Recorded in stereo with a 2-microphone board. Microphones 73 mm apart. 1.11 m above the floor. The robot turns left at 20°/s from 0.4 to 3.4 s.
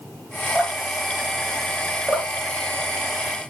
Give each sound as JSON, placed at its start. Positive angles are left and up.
{"t": 0.6, "sound": "dripping", "side_deg": -5, "distance_m": 2.0}
{"t": 2.1, "sound": "dripping", "side_deg": 0, "distance_m": 2.0}